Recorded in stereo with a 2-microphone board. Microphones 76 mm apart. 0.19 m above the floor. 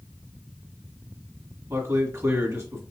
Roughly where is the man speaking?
Right.